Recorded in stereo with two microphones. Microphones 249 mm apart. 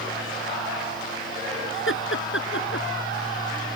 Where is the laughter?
60° left (ahead or behind); by 2.9 s 55° left (ahead or behind).